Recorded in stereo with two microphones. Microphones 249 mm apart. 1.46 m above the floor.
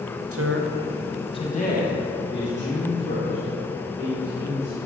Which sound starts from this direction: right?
A man speaking, at 0.3 s.